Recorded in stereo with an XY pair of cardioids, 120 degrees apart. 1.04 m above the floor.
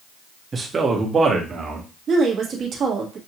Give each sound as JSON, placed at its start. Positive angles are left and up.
{"t": 0.5, "sound": "a man speaking", "azimuth_deg": -25, "distance_m": 1.2}
{"t": 2.1, "sound": "a woman speaking", "azimuth_deg": -45, "distance_m": 1.5}